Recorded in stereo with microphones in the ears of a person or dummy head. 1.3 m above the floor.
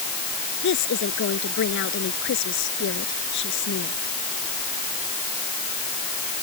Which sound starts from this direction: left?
A woman speaking, at 0.6 s.